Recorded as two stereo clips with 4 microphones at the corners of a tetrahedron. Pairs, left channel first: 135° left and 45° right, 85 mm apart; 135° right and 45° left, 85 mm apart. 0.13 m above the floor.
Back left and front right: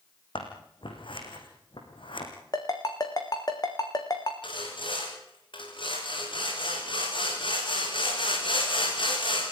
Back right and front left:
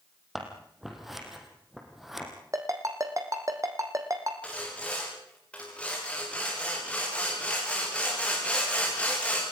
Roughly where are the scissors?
Behind left.